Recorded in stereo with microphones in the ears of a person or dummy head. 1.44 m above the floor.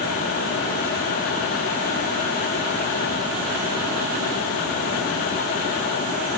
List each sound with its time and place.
Only background noise.